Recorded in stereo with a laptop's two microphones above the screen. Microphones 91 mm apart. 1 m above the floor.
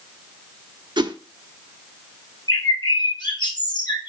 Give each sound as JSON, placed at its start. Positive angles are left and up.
{"t": 1.0, "sound": "a whoosh", "side_deg": -65, "distance_m": 0.8}
{"t": 2.5, "sound": "a bird", "side_deg": 55, "distance_m": 5.0}